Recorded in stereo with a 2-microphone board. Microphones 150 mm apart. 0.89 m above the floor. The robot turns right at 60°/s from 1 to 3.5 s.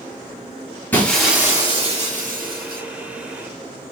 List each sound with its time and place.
0.9 s breaking glass: 170° left, 4.5 m; by 2.8 s 85° right, 4.5 m